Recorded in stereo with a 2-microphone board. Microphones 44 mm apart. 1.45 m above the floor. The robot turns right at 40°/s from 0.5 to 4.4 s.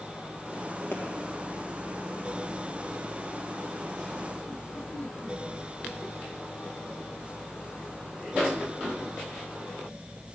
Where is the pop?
75° left (ahead or behind), 1.7 m.